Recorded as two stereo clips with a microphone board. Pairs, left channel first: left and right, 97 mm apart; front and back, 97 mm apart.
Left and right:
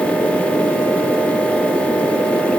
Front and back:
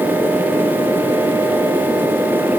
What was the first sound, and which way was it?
Only background noise.